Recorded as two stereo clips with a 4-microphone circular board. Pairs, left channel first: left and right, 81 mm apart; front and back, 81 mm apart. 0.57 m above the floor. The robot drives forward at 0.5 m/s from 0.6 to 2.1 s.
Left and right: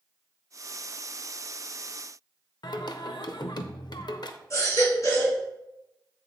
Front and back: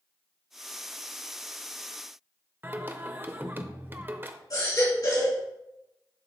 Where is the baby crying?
40° left, 3 m.